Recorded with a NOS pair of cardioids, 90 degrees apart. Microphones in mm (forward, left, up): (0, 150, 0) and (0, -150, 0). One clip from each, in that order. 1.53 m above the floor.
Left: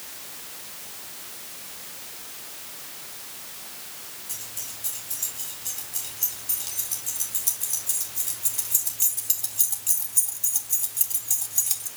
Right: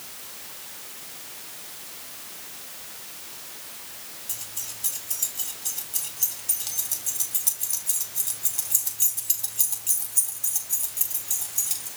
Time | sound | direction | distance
4.3 | keys jangling | 35° right | 5.5 m